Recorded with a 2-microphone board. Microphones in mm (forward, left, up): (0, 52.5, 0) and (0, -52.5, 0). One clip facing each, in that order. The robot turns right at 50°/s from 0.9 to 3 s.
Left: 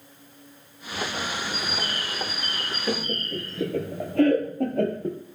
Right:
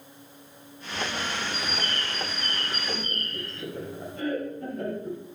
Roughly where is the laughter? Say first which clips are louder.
Left 6 dB; left.